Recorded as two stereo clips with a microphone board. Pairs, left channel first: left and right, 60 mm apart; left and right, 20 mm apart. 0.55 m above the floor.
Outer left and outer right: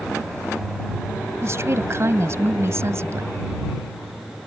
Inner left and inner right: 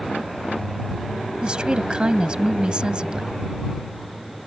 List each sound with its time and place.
1.4 s a woman speaking: 50° right (ahead or behind)